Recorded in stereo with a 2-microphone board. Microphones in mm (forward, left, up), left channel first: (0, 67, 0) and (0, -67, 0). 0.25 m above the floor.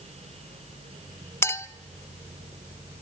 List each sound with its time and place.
1.4 s a clink: 20° left (ahead or behind), 0.6 m